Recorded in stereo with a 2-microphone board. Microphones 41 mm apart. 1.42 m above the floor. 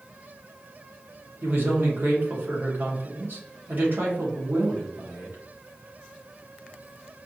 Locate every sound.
1.4 s a man speaking: 60° right (ahead or behind), 2.0 m